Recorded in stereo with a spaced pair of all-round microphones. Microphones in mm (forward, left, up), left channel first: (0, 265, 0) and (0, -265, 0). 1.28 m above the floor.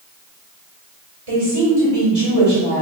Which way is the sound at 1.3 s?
75° right (ahead or behind).